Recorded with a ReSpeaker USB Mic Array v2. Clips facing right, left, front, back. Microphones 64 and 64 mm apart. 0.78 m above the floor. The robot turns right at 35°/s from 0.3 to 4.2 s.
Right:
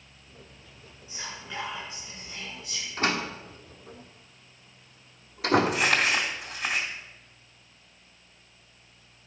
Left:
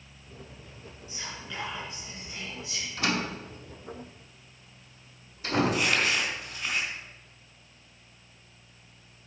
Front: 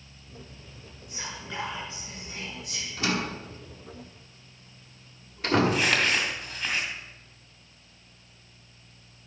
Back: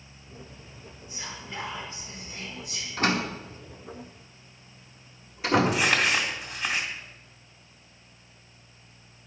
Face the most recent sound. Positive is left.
turn(degrees=-100)